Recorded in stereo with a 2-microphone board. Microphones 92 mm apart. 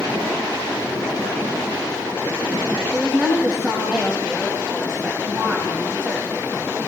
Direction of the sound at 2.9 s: 10° right (ahead or behind).